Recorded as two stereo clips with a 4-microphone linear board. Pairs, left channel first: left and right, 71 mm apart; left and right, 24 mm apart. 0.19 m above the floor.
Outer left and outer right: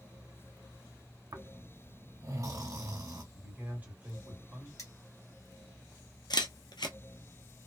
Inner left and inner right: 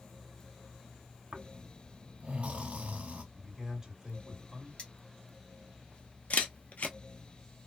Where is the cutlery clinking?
50° left (ahead or behind), 1.7 m.